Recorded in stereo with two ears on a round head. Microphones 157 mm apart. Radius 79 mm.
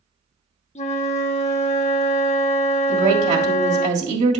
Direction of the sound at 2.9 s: 40° right (ahead or behind).